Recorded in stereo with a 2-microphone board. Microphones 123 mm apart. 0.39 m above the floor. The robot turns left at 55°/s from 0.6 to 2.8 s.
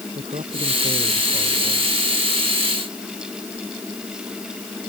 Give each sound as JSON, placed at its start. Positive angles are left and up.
{"t": 0.1, "sound": "a man speaking", "azimuth_deg": -110}